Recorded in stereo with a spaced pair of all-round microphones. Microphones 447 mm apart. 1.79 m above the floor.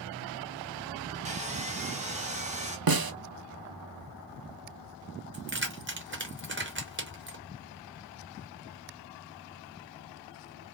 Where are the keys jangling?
25° right (ahead or behind), 0.9 m.